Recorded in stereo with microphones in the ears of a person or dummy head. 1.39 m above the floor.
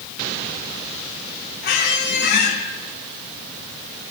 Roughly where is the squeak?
Left.